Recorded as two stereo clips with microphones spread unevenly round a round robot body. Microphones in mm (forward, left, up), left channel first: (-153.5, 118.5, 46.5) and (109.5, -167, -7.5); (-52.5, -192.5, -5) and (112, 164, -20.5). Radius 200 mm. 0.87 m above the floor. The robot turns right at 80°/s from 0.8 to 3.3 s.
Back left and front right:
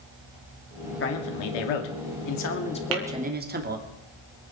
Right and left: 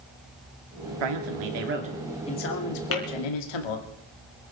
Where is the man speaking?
70° left, 2.5 m; by 3.9 s 110° right, 2.5 m.